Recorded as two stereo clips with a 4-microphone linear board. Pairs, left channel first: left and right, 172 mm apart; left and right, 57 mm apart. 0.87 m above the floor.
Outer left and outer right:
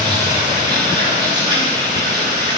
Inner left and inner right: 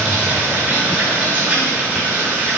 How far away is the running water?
About 8 m.